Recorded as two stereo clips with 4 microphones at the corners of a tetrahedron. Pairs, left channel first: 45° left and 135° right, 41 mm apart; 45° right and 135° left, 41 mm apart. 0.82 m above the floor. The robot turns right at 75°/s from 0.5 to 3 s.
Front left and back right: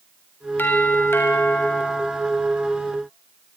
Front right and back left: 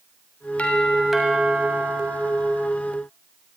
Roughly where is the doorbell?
Ahead.